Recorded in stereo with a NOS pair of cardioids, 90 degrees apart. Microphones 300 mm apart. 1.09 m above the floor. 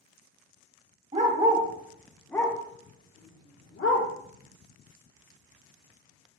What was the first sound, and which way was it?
A dog barking, 25° right.